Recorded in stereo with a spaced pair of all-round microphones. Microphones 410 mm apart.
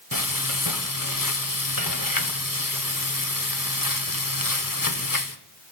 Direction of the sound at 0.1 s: 50° left (ahead or behind).